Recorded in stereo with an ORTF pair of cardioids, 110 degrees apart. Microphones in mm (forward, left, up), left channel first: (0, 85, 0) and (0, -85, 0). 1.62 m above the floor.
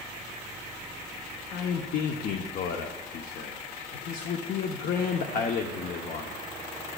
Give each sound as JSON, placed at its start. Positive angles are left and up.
{"t": 1.5, "sound": "a man speaking", "azimuth_deg": 60, "distance_m": 0.8}